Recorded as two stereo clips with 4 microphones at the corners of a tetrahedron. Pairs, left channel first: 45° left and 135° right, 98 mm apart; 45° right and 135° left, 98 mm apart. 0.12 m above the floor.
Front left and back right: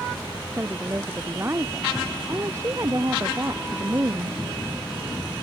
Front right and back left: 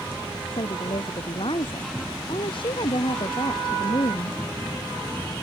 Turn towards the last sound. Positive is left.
turn(degrees=-75)